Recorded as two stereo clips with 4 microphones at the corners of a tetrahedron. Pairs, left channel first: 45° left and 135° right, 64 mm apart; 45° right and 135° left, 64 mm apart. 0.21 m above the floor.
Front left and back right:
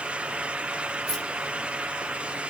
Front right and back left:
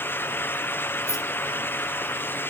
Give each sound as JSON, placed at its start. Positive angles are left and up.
{"t": 1.1, "sound": "keys jangling", "azimuth_deg": -40, "distance_m": 1.6}